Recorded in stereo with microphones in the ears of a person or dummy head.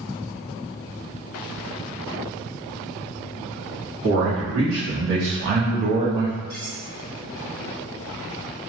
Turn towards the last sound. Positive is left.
turn(degrees=-45)  # may be behind; listen again after turning